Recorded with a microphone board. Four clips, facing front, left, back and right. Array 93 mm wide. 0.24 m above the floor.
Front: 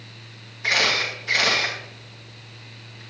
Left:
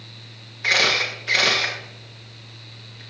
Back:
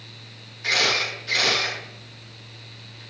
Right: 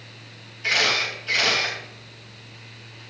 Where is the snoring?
I don't hear snoring.